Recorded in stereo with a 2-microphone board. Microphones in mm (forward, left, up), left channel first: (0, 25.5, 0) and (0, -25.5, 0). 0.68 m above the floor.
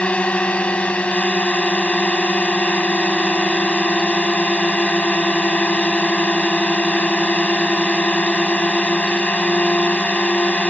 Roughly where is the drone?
Left.